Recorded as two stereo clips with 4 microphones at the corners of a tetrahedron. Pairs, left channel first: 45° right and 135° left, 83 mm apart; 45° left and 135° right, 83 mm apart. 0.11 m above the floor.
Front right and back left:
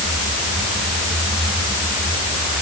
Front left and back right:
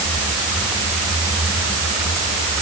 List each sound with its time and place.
Only background noise.